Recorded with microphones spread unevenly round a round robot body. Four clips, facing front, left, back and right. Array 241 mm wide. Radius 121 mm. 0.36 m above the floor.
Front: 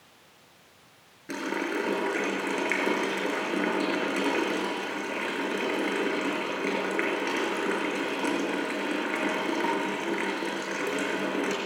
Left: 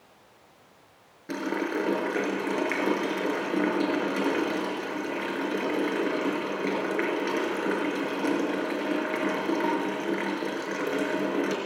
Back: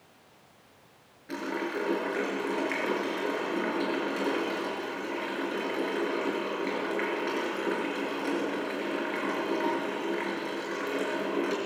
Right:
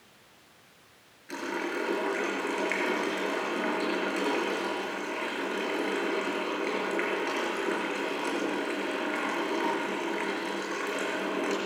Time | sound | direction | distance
1.3 | a running tap | 50° left | 4.5 m